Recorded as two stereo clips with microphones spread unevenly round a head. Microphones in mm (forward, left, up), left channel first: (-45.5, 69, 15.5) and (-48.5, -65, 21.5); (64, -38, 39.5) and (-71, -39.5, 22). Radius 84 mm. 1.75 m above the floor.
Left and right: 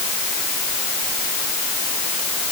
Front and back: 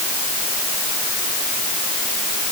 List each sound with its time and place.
Only background noise.